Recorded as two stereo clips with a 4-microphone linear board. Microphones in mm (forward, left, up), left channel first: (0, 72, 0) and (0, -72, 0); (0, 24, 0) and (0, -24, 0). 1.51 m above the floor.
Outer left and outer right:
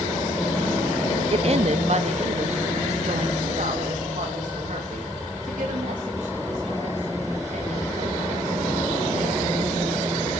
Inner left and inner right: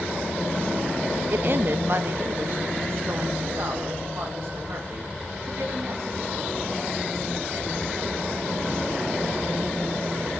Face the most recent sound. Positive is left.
turn(degrees=-60)  # may be behind; listen again after turning